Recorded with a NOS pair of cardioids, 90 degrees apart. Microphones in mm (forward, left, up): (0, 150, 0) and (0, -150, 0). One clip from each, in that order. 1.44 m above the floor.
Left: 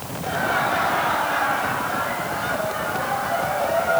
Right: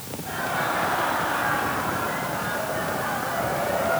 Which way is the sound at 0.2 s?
65° left.